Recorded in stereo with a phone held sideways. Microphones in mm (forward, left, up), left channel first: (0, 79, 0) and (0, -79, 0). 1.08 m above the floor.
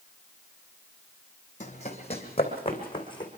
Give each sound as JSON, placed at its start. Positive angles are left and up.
{"t": 1.6, "sound": "running footsteps", "side_deg": 50, "distance_m": 2.5}